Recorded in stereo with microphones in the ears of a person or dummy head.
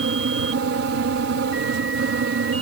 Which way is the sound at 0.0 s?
70° right (ahead or behind).